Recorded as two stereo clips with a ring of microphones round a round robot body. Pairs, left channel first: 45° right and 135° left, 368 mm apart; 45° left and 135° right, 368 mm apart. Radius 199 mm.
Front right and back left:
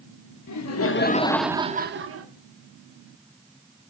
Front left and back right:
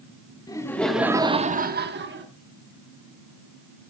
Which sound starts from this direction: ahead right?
Laughter, at 0.5 s.